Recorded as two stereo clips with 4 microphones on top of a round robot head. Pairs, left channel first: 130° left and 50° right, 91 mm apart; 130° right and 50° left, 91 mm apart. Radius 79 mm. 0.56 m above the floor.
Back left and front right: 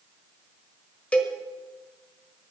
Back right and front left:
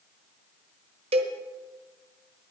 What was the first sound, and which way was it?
A cowbell, 50° left.